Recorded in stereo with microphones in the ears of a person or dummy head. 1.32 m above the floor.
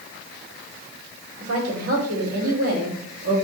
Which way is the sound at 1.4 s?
90° right.